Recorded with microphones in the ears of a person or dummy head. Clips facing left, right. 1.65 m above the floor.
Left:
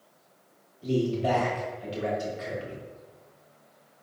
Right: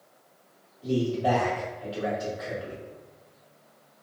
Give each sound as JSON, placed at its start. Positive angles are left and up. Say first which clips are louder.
{"t": 0.8, "sound": "a man speaking", "louder": "even", "side_deg": 30, "distance_m": 1.3}